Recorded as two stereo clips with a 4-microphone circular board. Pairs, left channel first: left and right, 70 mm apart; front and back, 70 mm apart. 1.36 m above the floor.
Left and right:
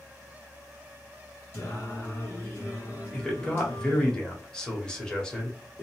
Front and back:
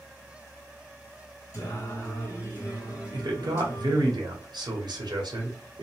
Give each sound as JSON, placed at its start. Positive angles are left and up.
{"t": 1.5, "sound": "singing", "azimuth_deg": 35, "distance_m": 1.9}
{"t": 3.1, "sound": "a man speaking", "azimuth_deg": 170, "distance_m": 0.9}